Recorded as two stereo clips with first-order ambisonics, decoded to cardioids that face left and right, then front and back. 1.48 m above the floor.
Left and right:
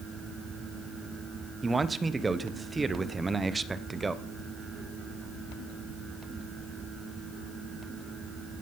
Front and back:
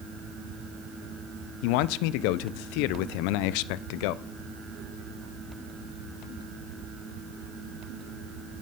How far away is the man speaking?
About 0.6 m.